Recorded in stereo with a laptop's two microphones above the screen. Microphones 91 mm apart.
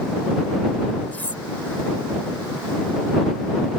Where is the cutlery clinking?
20° left (ahead or behind).